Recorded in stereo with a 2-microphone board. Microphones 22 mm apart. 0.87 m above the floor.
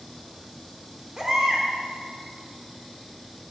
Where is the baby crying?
30° right (ahead or behind), 0.8 m.